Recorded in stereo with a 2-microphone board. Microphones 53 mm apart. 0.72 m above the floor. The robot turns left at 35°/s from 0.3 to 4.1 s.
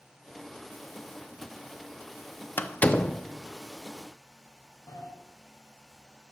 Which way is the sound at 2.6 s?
35° left (ahead or behind).